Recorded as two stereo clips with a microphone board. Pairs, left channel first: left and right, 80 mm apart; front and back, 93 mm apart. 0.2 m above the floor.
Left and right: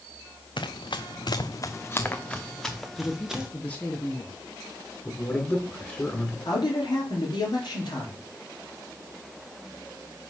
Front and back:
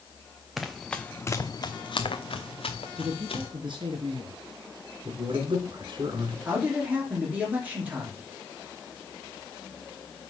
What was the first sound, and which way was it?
Running footsteps, 95° left.